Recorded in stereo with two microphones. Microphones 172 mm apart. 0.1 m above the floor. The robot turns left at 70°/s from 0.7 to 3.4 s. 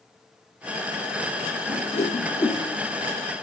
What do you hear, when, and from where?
1.7 s a whoosh: 55° left (ahead or behind), 0.9 m; by 2.6 s 5° left (ahead or behind), 0.9 m